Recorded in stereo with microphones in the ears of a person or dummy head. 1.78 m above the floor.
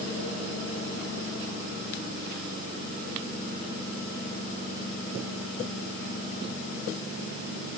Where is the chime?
No chime in this recording.